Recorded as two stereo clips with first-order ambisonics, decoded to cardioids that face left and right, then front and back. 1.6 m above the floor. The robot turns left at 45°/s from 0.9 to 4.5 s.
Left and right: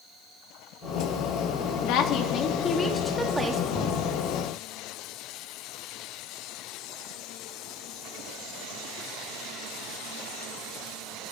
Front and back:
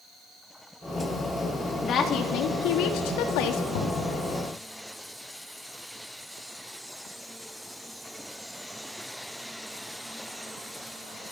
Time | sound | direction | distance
1.8 | a woman speaking | 60° left | 2.5 m
3.7 | knocking | 15° left | 9 m